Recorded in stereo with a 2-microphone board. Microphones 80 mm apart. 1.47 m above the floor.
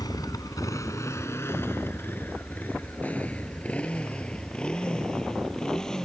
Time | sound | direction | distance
0.0 | a motorcycle | 55° left (ahead or behind) | ?